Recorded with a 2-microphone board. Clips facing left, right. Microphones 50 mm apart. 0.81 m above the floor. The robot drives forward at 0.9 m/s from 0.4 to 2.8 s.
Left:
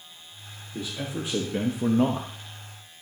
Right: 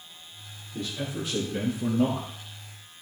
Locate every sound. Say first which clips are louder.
0.7 s a man speaking: even; 20° left (ahead or behind), 1.5 m; by 2.3 s 40° left (ahead or behind), 0.9 m